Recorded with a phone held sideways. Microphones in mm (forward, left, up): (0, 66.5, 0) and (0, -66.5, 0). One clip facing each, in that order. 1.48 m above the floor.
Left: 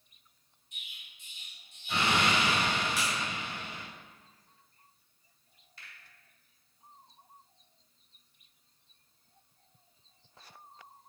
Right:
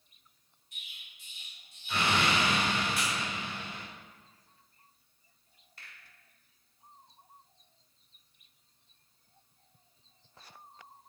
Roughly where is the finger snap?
Right.